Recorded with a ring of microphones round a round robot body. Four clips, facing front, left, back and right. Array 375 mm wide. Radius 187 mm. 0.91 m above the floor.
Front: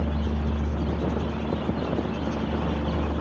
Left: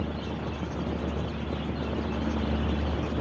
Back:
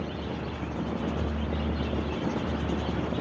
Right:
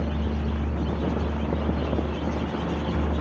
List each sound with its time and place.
Only background noise.